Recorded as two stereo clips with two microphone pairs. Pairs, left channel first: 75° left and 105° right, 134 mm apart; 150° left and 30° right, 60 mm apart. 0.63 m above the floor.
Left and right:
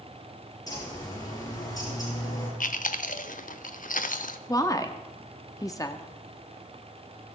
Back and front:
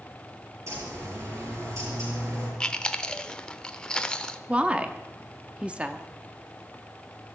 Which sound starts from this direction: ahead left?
A woman speaking, at 4.5 s.